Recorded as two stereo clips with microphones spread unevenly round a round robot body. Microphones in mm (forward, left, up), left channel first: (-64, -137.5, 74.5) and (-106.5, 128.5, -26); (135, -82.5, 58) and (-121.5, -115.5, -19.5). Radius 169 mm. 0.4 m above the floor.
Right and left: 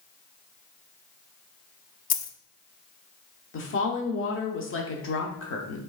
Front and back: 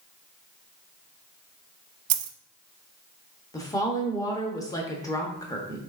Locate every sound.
2.1 s a dropped coin: 130° right, 0.5 m
3.5 s a woman speaking: 95° right, 0.8 m